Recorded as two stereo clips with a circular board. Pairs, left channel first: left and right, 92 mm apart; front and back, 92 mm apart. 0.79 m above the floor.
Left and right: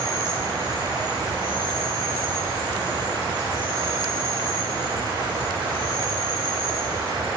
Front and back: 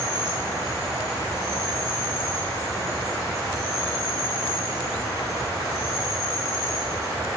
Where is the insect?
50° right, 3.5 m.